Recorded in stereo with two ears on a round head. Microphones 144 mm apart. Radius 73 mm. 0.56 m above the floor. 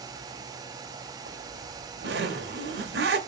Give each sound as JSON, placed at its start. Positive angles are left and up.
{"t": 1.3, "sound": "a zipper", "side_deg": -70, "distance_m": 1.6}